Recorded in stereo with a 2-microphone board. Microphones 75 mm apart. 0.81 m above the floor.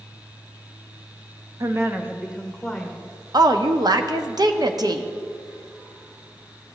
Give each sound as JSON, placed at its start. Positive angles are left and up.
{"t": 1.6, "sound": "a woman speaking", "side_deg": -50, "distance_m": 0.7}
{"t": 3.3, "sound": "a woman speaking", "side_deg": -60, "distance_m": 0.7}